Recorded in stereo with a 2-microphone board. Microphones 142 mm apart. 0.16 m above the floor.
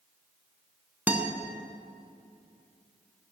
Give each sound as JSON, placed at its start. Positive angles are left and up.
{"t": 1.1, "sound": "a guitar", "side_deg": -10, "distance_m": 0.7}